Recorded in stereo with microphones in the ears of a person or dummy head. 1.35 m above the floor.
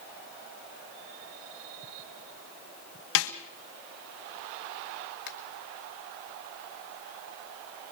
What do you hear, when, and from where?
3.1 s a snare drum: 75° left (ahead or behind), 1.8 m
5.3 s a finger snap: 60° left (ahead or behind), 2 m